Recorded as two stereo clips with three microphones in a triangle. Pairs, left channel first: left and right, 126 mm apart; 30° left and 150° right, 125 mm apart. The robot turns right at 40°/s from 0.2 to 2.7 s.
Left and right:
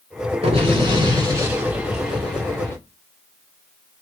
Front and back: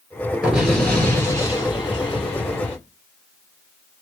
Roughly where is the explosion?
Ahead right.